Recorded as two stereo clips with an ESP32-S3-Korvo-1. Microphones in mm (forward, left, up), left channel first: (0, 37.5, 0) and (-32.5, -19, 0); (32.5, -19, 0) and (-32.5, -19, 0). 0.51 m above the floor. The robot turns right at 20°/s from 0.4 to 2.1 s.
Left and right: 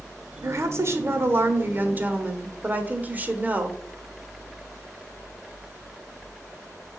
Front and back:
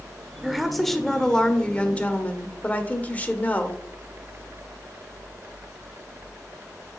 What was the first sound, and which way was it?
A woman speaking, 95° right.